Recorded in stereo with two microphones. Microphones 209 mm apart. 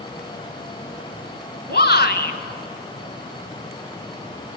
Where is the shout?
55° left (ahead or behind), 2 m.